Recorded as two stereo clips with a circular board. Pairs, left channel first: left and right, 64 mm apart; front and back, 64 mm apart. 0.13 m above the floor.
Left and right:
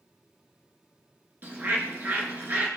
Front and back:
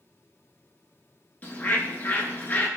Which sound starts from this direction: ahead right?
A bird, at 1.4 s.